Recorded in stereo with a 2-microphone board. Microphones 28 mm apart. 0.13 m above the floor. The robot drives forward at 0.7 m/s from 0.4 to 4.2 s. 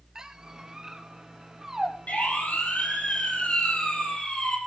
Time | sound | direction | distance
0.1 | a squeak | 20° right (ahead or behind) | 1.2 m
2.1 | a siren | 65° left (ahead or behind) | 6 m